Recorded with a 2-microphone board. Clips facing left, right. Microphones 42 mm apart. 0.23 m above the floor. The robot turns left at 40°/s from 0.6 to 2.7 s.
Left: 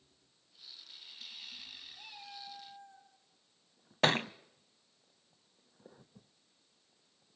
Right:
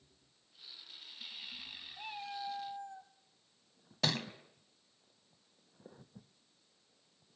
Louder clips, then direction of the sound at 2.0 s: Right 10 dB; 35° right (ahead or behind).